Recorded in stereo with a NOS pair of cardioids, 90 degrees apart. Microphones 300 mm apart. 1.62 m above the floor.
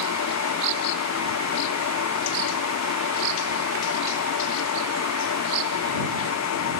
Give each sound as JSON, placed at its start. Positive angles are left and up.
{"t": 0.0, "sound": "a fan", "azimuth_deg": 60}